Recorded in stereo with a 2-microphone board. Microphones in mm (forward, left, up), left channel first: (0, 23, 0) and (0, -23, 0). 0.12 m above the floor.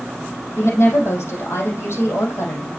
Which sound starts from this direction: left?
A woman speaking, at 0.6 s.